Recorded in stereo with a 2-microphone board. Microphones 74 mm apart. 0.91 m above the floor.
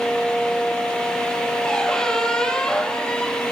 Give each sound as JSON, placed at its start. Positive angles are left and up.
{"t": 1.6, "sound": "a squeak", "side_deg": 10, "distance_m": 2.5}